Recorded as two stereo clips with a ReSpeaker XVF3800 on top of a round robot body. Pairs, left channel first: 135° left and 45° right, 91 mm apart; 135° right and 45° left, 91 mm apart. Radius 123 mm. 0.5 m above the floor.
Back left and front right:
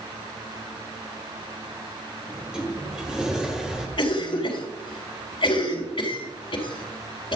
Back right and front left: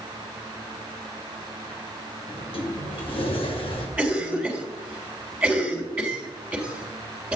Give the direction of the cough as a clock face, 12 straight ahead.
8 o'clock.